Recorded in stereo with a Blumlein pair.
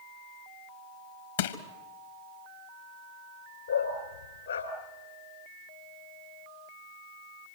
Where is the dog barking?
70° left, 3 m.